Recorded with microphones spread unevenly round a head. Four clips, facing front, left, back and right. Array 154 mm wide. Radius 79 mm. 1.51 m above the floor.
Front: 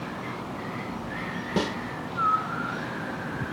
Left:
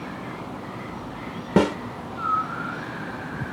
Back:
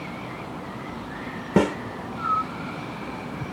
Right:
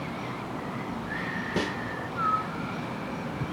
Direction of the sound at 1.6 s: 130° left.